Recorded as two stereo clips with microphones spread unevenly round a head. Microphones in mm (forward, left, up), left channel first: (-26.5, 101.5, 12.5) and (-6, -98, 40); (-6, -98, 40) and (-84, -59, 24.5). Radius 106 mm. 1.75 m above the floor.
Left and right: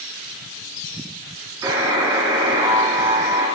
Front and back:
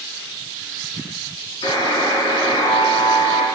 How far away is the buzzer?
About 3.5 m.